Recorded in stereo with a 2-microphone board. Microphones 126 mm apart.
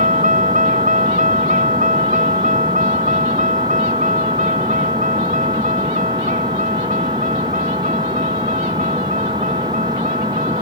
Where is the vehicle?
85° right.